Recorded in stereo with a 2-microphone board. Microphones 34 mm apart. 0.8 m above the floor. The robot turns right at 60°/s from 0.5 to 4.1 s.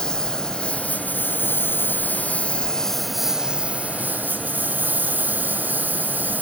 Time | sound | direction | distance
0.0 | a lawn mower | 25° left | ?